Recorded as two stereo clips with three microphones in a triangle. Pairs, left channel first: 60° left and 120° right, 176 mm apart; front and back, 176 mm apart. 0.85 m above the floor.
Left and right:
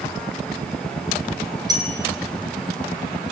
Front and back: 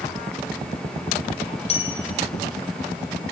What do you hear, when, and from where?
1.7 s a bell: 55° right, 3 m